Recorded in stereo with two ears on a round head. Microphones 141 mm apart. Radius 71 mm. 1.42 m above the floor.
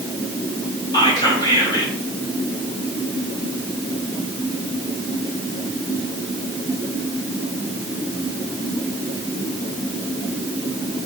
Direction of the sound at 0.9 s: 25° left (ahead or behind).